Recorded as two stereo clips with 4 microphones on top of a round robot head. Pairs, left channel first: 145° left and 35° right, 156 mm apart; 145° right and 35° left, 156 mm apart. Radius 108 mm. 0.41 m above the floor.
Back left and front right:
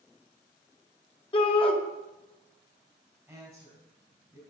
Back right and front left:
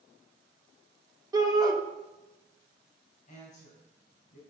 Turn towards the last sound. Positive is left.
turn(degrees=-115)